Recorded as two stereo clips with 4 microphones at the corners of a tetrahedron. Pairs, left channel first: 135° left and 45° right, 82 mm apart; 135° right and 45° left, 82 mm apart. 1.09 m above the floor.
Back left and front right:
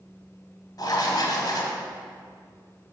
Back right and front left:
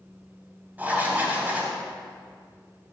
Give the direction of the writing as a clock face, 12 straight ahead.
8 o'clock.